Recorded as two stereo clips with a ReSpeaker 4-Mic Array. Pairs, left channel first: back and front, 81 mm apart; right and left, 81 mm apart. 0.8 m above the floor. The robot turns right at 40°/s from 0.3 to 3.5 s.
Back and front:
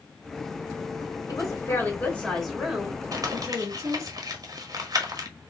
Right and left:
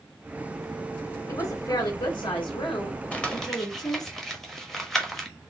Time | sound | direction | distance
1.3 | a woman speaking | 140° right | 3 m
3.1 | crumpling | 20° right | 1.2 m